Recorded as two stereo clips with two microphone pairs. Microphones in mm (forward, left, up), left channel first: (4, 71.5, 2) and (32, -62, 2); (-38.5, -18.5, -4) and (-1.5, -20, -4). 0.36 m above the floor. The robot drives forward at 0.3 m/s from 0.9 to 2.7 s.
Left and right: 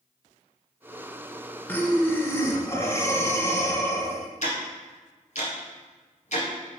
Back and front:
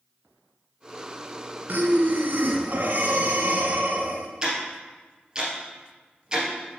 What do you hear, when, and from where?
1.7 s breathing: 25° left, 1.2 m; by 4.3 s 35° left, 0.9 m
4.4 s ticking: 70° left, 2 m